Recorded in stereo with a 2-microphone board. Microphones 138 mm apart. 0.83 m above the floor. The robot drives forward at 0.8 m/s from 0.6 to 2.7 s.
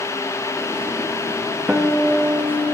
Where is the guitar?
5° right (ahead or behind), 0.7 m.